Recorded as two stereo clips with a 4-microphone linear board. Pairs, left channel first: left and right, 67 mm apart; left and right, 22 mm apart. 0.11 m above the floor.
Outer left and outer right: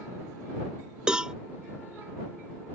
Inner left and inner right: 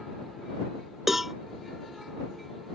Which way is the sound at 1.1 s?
15° right (ahead or behind).